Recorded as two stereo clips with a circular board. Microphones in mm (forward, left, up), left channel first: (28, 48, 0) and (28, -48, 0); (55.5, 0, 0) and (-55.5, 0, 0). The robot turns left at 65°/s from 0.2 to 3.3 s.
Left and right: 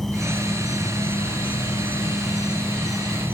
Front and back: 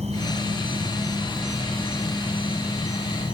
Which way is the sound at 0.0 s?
Straight behind.